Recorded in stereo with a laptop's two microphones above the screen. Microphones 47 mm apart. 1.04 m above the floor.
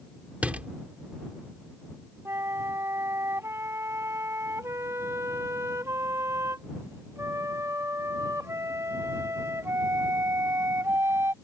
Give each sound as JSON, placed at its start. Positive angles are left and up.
{"t": 0.4, "sound": "a door slam", "side_deg": -25}
{"t": 2.2, "sound": "a flute", "side_deg": -85}